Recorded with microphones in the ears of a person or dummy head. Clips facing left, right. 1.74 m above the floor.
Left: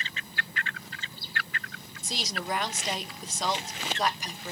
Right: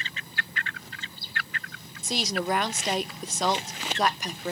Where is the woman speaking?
50° right (ahead or behind), 0.5 m.